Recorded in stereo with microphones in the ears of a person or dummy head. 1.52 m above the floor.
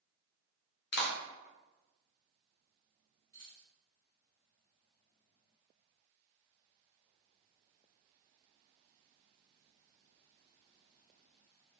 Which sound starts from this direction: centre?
Keys jangling, at 3.3 s.